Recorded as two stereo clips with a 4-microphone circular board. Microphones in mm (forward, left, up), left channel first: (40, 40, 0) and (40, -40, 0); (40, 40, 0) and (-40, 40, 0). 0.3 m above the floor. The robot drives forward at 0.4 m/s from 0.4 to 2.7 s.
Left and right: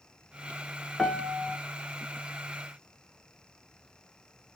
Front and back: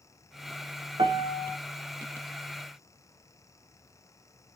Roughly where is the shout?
No shout in this recording.